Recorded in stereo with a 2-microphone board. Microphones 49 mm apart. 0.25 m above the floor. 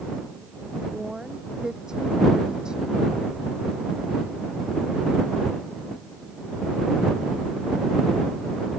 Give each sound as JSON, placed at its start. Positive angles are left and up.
{"t": 0.9, "sound": "a woman speaking", "side_deg": -10}